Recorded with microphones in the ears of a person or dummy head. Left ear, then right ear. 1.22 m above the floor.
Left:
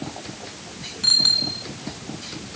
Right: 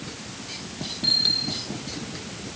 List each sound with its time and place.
1.0 s a bicycle bell: 35° left (ahead or behind)